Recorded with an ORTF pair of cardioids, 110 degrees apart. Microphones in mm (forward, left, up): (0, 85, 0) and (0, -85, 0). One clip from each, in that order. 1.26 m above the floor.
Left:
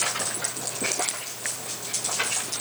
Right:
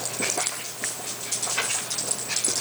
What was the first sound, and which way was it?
Only background noise.